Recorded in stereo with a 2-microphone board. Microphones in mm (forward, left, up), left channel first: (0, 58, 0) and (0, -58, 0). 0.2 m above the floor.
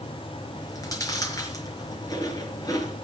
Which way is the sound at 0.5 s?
30° left (ahead or behind).